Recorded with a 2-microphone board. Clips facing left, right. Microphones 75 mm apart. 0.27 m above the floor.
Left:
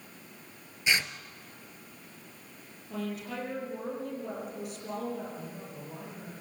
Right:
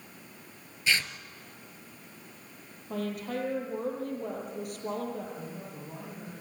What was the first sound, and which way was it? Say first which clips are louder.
Tearing paper: even; 20° left (ahead or behind).